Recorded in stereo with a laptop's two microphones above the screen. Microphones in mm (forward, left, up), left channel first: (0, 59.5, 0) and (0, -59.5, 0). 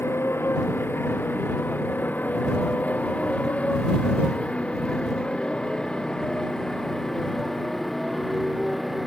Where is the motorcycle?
20° left (ahead or behind); by 9.1 s centre (ahead or behind).